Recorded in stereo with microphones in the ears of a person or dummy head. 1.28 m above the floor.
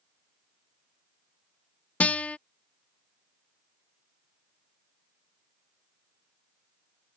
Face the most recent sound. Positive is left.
turn(degrees=10)  # may be behind; listen again after turning